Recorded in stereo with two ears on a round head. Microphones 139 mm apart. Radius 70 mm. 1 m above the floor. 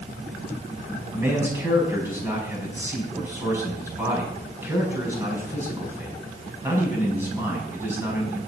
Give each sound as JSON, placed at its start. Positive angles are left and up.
{"t": 1.1, "sound": "a man speaking", "side_deg": -15, "distance_m": 6.0}